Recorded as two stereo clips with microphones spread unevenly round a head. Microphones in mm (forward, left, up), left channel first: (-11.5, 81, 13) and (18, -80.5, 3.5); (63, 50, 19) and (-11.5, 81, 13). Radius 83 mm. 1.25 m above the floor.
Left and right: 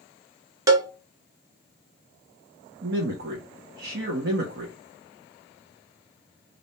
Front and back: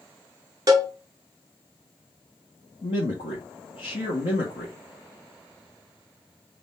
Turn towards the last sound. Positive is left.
turn(degrees=-50)